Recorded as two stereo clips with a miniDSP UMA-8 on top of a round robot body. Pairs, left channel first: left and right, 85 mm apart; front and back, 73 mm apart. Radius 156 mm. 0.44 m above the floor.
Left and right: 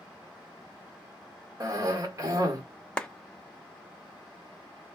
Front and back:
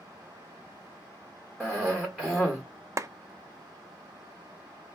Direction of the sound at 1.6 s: 75° right.